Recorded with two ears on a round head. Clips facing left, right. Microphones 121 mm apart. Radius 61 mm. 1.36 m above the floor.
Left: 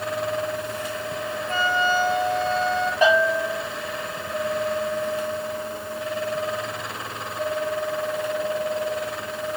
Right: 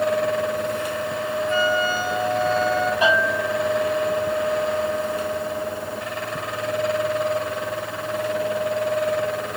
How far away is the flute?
About 2.5 m.